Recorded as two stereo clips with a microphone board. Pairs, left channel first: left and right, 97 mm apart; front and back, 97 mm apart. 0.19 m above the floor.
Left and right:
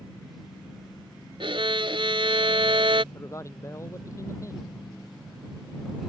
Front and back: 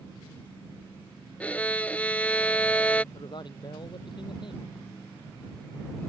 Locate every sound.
1.4 s a violin: 75° right
3.1 s a man speaking: 35° left